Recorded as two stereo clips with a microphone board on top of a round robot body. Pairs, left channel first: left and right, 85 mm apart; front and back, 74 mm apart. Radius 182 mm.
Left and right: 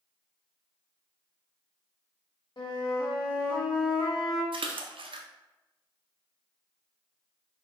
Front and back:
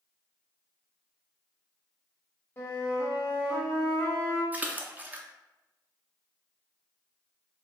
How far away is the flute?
About 1.7 m.